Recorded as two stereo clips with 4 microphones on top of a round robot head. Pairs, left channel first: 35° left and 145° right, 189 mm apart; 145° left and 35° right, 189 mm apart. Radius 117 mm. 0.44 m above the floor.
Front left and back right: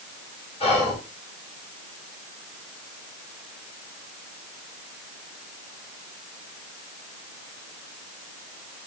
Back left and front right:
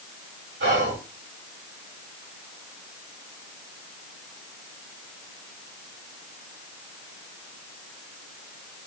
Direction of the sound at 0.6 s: 20° right.